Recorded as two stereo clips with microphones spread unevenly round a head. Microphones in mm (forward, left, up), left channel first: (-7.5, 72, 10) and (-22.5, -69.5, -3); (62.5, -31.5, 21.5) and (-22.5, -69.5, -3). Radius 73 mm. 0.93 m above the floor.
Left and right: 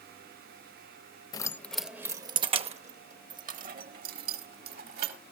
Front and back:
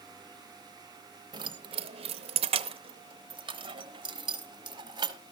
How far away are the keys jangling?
About 0.7 m.